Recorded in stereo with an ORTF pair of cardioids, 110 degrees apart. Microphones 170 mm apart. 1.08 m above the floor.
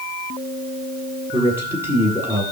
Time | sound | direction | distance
1.3 | a man speaking | 15° right | 9.5 m